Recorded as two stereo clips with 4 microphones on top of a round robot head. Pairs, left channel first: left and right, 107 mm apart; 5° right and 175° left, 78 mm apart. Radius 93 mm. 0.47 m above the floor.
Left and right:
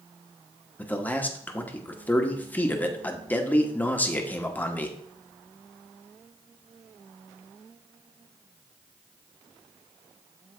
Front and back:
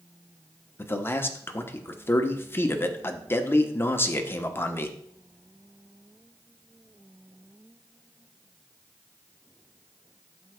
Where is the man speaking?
30° left, 0.9 m.